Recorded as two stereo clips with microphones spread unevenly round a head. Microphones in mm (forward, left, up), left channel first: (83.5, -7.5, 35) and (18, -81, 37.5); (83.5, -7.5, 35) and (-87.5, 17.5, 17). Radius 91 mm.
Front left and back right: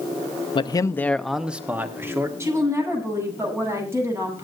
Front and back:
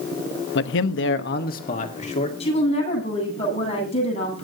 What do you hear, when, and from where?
0.6 s a man speaking: 15° left, 0.8 m; by 2.3 s 65° right, 1.9 m
2.4 s a woman speaking: 65° right, 9.5 m